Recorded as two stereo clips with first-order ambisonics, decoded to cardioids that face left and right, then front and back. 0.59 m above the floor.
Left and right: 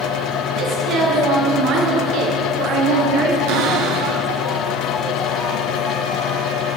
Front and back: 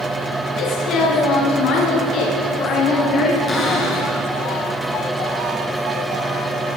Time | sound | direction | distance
0.6 | a woman speaking | 45° right | 10 m
3.5 | a cupboard door | 70° right | 7 m